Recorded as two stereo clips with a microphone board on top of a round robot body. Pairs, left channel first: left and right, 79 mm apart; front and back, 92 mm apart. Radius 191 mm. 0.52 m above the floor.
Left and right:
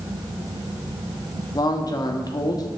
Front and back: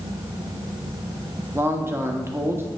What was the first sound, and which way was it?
A man speaking, 120° left.